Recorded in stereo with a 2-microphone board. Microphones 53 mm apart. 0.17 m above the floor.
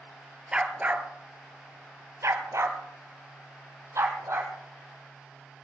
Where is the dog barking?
20° right (ahead or behind), 1.2 m; by 4.5 s 70° right (ahead or behind), 2.5 m.